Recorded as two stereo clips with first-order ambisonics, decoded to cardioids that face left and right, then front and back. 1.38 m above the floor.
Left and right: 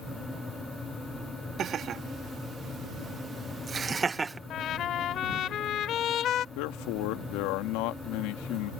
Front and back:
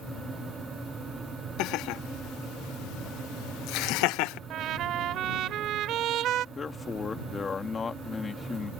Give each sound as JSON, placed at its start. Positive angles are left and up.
{"t": 1.6, "sound": "laughter", "azimuth_deg": -30}
{"t": 4.5, "sound": "a trumpet", "azimuth_deg": 140}
{"t": 6.5, "sound": "a man speaking", "azimuth_deg": 75}